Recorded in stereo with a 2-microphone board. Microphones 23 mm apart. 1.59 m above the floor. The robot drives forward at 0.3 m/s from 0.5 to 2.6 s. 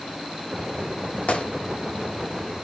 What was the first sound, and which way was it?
A gunshot, 75° left (ahead or behind).